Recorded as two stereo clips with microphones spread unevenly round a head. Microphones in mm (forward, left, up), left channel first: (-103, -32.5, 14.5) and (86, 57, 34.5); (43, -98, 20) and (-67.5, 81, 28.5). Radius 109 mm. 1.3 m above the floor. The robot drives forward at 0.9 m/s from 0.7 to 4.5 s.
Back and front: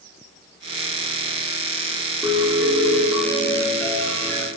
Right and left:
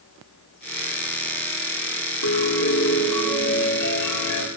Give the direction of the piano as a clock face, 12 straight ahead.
2 o'clock.